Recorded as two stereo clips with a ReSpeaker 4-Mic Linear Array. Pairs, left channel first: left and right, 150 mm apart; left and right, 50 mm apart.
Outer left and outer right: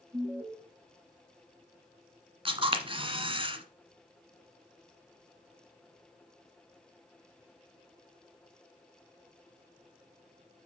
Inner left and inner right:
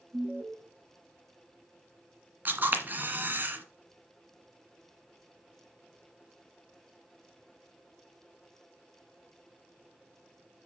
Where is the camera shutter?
35° right (ahead or behind), 1.5 m.